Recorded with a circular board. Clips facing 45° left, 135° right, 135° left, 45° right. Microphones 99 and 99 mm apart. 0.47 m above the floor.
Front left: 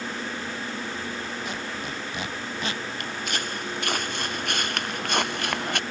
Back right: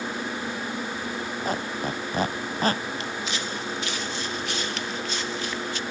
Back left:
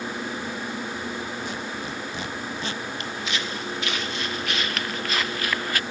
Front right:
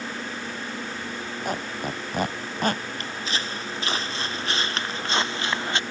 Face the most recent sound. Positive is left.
turn(degrees=20)